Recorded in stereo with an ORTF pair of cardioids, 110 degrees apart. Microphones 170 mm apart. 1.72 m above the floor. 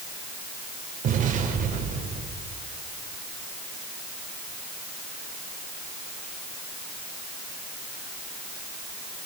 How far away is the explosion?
About 4.5 m.